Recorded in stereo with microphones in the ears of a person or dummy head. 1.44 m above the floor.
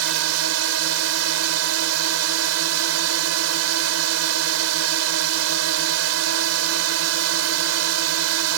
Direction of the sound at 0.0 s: 85° right.